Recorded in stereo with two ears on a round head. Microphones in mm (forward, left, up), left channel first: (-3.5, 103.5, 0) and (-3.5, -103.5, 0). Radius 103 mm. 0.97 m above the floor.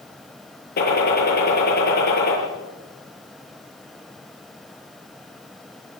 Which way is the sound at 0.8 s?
45° left (ahead or behind).